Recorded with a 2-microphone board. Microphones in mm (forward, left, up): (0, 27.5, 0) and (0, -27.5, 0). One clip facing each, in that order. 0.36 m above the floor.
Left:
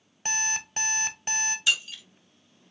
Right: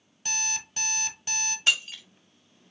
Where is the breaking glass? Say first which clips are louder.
Right 2 dB; 50° right (ahead or behind), 1.0 m.